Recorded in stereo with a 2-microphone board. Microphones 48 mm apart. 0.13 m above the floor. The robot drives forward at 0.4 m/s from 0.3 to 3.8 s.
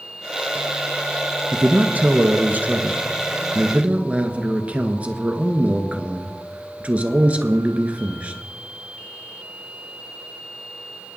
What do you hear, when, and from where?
1.5 s a man speaking: 35° right (ahead or behind), 1.2 m; by 8.4 s 25° right (ahead or behind), 1.5 m